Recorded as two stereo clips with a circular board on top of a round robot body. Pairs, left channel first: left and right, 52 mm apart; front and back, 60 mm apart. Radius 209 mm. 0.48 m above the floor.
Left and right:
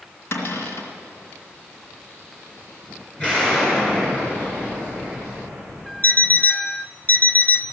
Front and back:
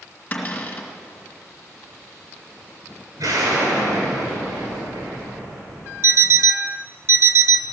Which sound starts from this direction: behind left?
An alarm clock, at 6.0 s.